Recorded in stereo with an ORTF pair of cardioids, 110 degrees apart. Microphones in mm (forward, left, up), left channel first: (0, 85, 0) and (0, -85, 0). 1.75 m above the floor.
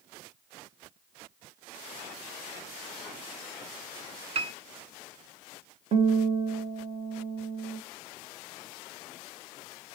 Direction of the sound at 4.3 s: 40° right.